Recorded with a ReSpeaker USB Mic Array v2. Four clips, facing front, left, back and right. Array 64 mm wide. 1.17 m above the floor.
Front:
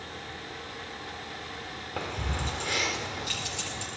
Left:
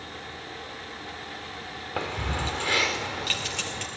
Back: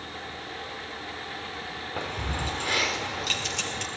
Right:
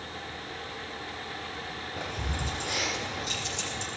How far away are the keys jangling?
About 2.5 m.